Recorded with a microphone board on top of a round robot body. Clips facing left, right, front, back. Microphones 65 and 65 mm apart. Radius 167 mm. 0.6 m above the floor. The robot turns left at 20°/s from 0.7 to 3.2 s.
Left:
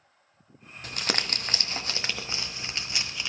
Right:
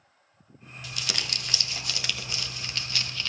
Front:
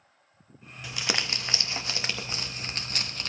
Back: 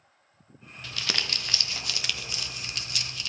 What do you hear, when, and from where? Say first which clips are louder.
0.8 s crumpling: left 4 dB, front 2 dB; 70° left, 1.5 m; by 3.3 s 20° left, 1.5 m